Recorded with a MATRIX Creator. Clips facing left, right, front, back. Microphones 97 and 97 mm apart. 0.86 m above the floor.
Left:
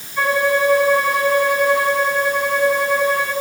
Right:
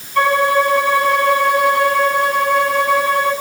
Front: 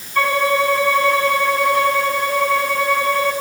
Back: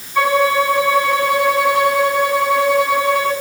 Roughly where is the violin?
Right.